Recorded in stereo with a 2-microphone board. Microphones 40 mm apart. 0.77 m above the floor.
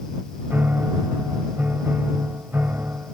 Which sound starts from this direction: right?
A piano, at 0.5 s.